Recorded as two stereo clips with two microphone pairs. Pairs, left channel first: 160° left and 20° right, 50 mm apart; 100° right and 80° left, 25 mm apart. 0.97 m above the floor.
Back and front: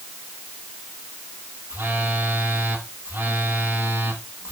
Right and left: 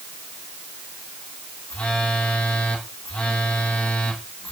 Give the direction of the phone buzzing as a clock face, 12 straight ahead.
2 o'clock.